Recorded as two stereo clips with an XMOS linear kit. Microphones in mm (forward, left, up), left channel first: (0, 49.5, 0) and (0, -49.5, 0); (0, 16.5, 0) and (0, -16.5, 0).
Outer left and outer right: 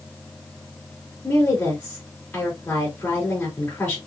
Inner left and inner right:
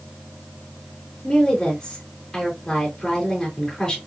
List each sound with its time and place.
1.2 s a woman speaking: 15° left (ahead or behind), 2.5 m